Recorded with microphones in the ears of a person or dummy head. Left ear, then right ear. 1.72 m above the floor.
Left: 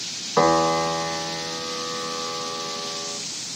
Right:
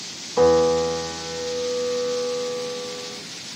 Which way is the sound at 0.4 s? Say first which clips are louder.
Right 2 dB; 60° left (ahead or behind).